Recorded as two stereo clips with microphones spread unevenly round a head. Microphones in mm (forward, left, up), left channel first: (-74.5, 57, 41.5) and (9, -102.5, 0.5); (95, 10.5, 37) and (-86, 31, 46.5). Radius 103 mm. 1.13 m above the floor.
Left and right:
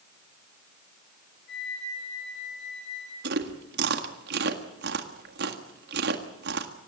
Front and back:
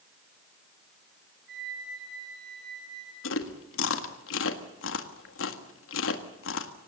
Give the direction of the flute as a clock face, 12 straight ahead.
7 o'clock.